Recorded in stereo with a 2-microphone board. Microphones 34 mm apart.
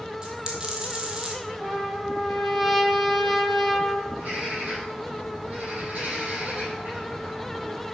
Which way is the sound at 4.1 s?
55° right (ahead or behind).